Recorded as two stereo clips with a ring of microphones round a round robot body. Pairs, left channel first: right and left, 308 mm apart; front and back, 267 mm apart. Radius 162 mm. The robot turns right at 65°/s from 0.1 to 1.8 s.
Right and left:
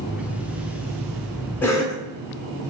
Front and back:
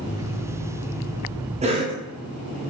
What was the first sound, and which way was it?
A cough, 165° right.